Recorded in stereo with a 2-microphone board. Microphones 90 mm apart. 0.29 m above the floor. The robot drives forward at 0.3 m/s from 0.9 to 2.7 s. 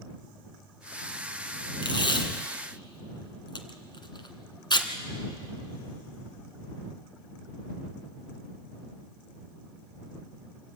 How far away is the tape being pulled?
About 1.6 m.